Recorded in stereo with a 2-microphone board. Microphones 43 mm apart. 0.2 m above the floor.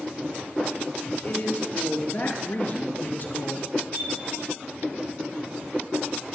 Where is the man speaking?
50° left (ahead or behind), 3 m; by 3.7 s 40° left (ahead or behind), 1.5 m.